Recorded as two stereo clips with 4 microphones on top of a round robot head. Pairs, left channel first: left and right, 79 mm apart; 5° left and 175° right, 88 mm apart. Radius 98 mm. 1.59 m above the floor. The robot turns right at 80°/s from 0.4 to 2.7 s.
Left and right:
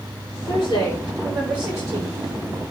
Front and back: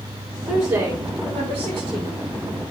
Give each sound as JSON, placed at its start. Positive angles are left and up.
{"t": 0.5, "sound": "a woman speaking", "azimuth_deg": 105, "distance_m": 8.0}